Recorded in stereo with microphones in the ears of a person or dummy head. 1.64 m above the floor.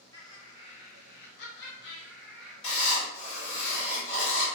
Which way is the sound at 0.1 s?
25° left (ahead or behind).